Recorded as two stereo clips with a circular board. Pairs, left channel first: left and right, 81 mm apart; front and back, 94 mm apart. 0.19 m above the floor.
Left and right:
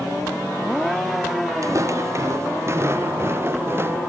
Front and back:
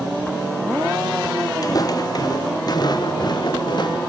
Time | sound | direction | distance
1.6 | footsteps | 45° right | ?